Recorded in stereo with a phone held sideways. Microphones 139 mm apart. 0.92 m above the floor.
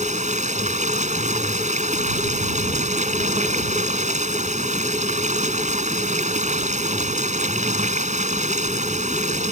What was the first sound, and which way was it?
Running water, 55° right (ahead or behind).